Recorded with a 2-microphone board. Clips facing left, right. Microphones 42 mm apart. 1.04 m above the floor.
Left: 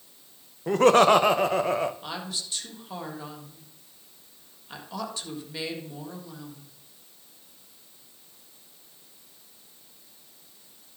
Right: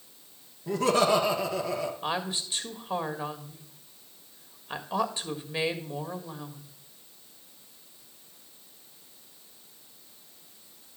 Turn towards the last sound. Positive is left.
turn(degrees=-25)  # may be behind; listen again after turning